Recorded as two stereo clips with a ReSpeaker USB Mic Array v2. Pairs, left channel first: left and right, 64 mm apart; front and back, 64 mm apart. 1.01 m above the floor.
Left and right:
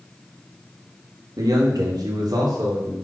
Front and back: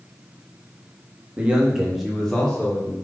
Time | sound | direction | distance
1.4 | a man speaking | 110° right | 1.5 m